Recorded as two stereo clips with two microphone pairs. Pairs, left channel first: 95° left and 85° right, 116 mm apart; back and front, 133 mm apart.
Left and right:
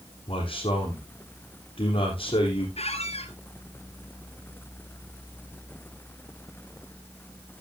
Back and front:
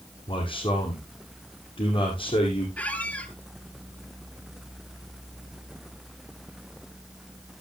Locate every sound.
0.3 s a man speaking: 130° left, 4 m
2.8 s a squeak: 105° left, 1.3 m